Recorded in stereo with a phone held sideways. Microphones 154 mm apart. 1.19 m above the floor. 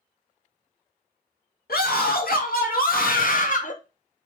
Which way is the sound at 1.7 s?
80° left.